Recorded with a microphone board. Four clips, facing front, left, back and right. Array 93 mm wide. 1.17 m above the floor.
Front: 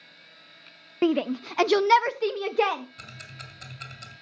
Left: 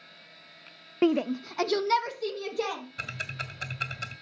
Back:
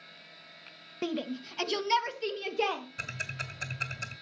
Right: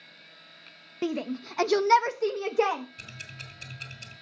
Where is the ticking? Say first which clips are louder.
Left 8 dB, back 5 dB; 105° left, 1.9 m.